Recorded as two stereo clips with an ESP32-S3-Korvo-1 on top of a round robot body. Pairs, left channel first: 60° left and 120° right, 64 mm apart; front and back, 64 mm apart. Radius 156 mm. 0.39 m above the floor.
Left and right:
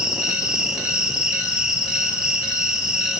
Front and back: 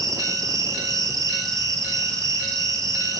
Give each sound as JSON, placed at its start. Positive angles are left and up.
{"t": 0.0, "sound": "an insect", "azimuth_deg": 160, "distance_m": 3.5}